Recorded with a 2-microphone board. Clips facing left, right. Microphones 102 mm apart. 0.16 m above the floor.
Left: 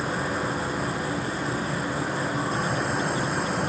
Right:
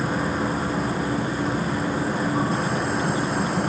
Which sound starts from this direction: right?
An insect, at 0.0 s.